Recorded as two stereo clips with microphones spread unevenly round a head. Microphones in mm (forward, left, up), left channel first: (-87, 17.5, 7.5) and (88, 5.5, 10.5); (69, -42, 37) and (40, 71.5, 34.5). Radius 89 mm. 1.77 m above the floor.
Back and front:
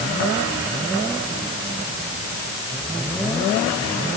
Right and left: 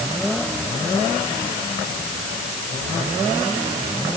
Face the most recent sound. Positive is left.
No sound to turn to.